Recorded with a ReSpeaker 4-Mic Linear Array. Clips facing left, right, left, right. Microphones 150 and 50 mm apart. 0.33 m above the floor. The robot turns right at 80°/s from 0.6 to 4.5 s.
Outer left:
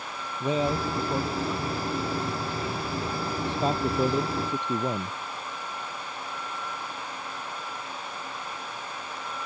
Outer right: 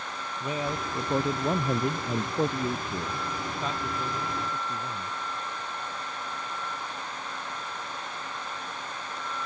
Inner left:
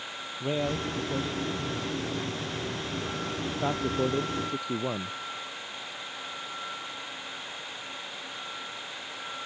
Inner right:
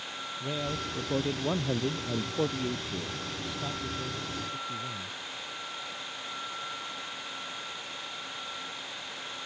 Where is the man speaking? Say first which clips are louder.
Outer left 6 dB, inner left 5 dB; 155° left; by 5.2 s 105° left.